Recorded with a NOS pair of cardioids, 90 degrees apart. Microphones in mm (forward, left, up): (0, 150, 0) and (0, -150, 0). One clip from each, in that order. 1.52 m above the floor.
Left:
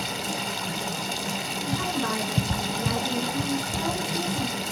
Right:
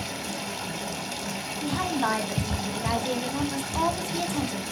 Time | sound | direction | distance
0.0 | running water | 20° left | 0.9 m
1.6 | a woman speaking | 70° right | 1.3 m